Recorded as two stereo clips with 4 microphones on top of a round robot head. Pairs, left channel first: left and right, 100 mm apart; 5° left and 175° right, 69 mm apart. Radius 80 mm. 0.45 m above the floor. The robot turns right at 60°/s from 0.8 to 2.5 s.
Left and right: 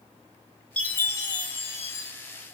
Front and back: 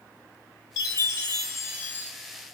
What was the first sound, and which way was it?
A chime, 10° left.